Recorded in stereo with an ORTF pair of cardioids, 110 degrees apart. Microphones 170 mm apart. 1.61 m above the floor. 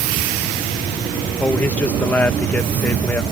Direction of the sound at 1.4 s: 10° left.